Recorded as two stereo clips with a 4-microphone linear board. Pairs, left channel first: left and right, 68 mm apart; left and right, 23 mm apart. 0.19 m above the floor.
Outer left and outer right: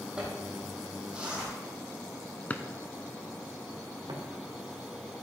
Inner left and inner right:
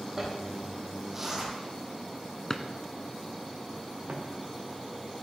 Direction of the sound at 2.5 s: 25° left (ahead or behind).